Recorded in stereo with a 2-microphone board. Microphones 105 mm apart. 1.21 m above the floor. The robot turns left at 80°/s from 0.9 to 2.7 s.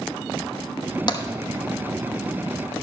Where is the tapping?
40° left (ahead or behind), 0.9 m; by 1.2 s 30° left (ahead or behind), 0.9 m.